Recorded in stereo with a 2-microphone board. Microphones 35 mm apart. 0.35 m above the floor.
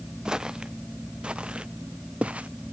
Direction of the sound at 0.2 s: 20° right (ahead or behind).